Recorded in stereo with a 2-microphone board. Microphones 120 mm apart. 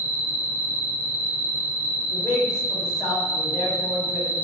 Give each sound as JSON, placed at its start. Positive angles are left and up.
{"t": 0.0, "sound": "an insect", "side_deg": -20, "distance_m": 0.8}
{"t": 2.1, "sound": "a man speaking", "side_deg": 10, "distance_m": 1.2}